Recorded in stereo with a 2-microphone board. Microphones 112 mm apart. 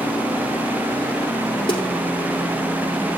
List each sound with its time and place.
1.7 s a snare drum: 45° left (ahead or behind), 3.5 m